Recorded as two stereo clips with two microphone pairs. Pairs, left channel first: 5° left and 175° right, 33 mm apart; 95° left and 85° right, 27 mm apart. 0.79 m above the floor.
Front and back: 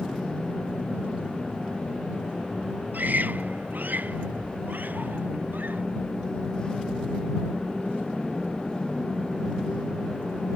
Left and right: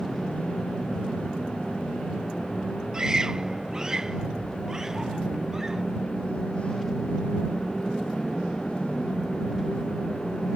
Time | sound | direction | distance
2.9 | a scream | 150° right | ?